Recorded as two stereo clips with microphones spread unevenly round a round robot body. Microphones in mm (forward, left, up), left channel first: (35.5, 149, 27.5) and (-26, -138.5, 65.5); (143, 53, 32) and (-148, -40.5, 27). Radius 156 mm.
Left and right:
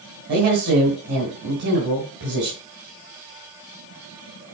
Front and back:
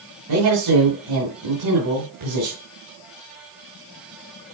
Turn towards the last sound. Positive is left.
turn(degrees=-160)